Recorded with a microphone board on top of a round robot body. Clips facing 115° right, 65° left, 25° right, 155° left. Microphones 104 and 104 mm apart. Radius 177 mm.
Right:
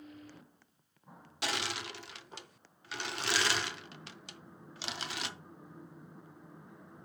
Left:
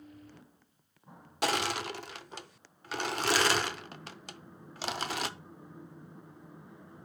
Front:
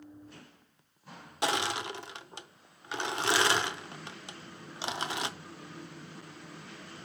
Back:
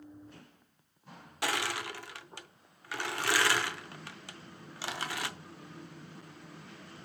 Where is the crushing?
40° left, 0.9 m.